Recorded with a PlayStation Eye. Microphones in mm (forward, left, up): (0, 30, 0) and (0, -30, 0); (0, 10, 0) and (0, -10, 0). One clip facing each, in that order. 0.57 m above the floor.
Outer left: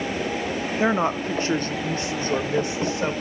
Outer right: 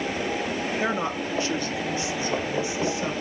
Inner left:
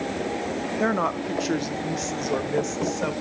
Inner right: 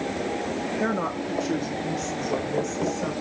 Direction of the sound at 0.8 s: 25° left (ahead or behind).